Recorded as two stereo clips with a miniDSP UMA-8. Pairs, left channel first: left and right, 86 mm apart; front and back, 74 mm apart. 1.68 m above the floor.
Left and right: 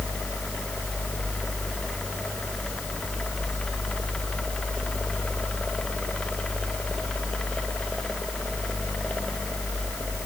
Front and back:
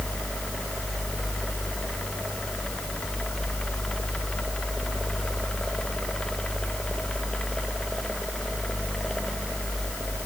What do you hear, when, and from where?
Only background noise.